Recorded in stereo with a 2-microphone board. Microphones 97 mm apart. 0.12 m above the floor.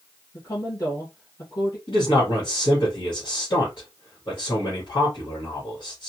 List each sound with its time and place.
0.3 s a woman speaking: 35° left (ahead or behind), 2.5 m
1.9 s a man speaking: 50° left (ahead or behind), 2.5 m